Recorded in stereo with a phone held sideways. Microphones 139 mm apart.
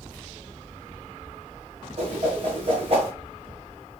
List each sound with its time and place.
2.0 s a whoosh: 45° right (ahead or behind), 2 m